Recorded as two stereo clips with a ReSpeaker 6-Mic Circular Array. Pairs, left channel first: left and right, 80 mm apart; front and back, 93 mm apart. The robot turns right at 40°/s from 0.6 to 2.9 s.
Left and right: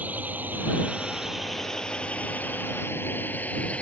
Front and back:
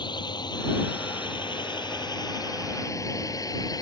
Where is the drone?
25° right; by 3.8 s 25° left.